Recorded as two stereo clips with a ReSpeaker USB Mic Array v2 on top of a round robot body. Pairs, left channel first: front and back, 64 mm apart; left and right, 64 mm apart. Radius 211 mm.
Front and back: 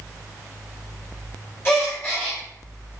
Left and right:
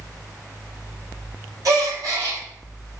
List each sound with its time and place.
1.6 s a gasp: 55° right, 1.5 m